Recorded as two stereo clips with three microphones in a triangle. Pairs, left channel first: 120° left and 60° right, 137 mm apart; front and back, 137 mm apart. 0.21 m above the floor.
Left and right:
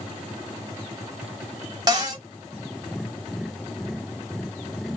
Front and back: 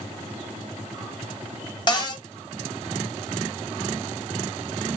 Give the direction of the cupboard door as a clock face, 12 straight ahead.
1 o'clock.